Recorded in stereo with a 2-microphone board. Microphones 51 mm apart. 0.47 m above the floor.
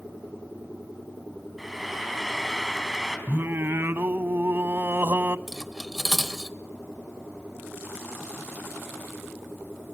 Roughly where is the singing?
Right.